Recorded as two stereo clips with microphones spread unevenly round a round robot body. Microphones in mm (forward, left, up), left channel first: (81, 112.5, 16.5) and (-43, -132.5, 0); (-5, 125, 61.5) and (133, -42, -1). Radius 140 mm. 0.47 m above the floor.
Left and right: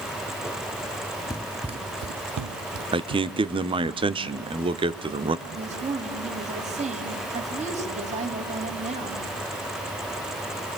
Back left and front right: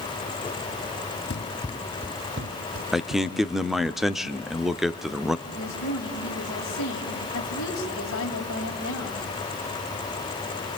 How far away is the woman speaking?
About 3.5 m.